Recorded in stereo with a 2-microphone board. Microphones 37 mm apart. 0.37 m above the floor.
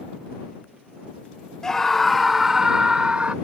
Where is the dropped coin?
No dropped coin in this recording.